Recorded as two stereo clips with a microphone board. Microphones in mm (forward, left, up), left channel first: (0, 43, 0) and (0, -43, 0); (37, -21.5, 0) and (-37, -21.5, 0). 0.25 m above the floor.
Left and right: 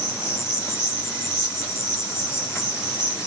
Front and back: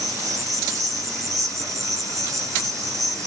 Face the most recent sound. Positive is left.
turn(degrees=145)